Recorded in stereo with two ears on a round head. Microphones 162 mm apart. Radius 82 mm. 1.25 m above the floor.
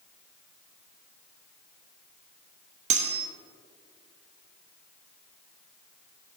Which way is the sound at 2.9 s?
40° right (ahead or behind).